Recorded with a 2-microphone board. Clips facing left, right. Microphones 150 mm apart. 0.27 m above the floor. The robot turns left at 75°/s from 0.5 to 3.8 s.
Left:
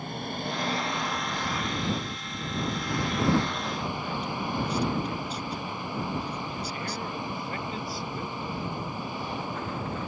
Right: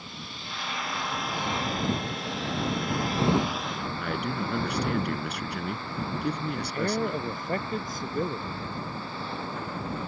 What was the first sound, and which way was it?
An engine running, 55° left.